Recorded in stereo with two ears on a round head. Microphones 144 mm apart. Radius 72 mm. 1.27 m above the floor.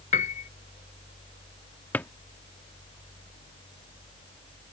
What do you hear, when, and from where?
0.1 s a piano: 45° left (ahead or behind)
1.9 s a drawer: 10° left (ahead or behind)